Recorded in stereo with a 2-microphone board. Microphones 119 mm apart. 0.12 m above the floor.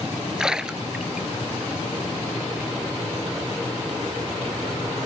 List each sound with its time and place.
0.4 s a splash: 5° right (ahead or behind)